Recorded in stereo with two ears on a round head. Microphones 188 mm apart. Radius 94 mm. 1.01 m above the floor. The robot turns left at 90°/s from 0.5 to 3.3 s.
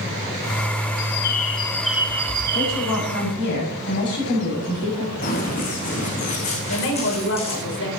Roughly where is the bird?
Left.